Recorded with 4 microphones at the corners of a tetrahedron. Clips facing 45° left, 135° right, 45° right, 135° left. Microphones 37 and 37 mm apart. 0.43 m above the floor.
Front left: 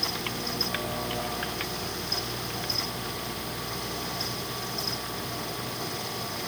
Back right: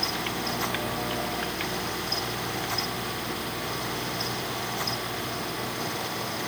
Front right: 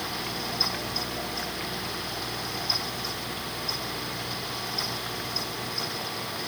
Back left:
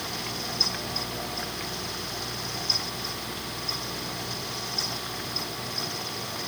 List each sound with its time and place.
Only background noise.